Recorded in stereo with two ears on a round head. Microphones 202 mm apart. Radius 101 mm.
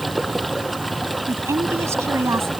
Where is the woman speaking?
10° right (ahead or behind).